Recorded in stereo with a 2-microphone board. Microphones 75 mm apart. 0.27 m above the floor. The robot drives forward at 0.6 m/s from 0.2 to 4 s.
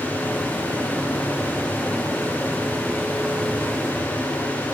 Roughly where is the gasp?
I don't hear a gasp.